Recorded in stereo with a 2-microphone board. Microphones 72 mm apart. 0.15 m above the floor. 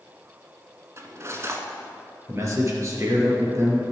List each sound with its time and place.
1.0 s cutlery clinking: 40° right (ahead or behind), 1.1 m
2.3 s a man speaking: 40° right (ahead or behind), 3 m